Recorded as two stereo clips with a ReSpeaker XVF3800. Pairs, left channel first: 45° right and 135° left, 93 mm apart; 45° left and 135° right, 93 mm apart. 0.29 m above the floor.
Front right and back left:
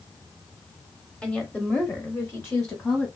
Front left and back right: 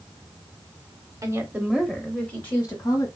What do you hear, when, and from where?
1.2 s a woman speaking: 120° right, 1.0 m; by 3.1 s 15° left, 1.3 m